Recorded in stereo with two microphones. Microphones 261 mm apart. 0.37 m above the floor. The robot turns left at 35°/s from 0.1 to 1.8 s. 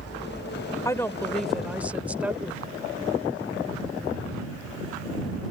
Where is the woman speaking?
25° left; by 2.6 s 10° right.